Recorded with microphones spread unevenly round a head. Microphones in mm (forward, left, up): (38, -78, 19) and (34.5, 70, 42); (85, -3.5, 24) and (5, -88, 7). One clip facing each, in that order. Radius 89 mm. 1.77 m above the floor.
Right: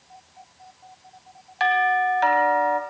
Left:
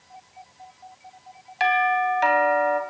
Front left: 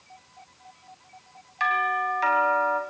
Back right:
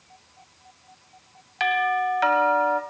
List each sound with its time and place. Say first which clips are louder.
1.6 s a doorbell: right 1 dB, back right 3 dB; 170° left, 1.3 m